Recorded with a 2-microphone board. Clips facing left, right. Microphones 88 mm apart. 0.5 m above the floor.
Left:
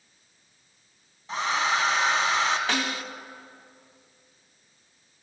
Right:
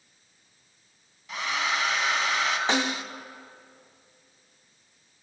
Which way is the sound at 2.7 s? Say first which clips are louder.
Right 2 dB; 20° right (ahead or behind).